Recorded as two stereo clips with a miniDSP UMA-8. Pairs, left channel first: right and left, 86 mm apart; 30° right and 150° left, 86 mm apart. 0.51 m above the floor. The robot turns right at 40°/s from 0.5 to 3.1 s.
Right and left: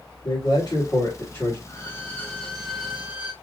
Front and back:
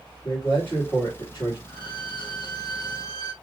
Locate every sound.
0.2 s a man speaking: 100° right, 2 m; by 1.6 s 55° right, 2 m
1.7 s a violin: 50° right, 3.5 m; by 3.3 s 10° left, 3.5 m